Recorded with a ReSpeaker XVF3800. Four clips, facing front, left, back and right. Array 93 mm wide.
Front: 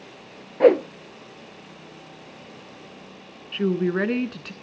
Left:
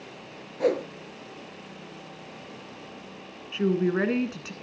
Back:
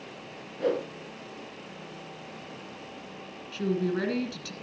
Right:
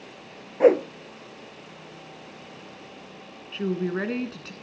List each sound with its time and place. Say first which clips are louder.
0.6 s a whoosh: right 8 dB, front 12 dB; 30° right, 0.8 m
3.5 s a woman speaking: left 3 dB, front 5 dB; 15° left, 1.3 m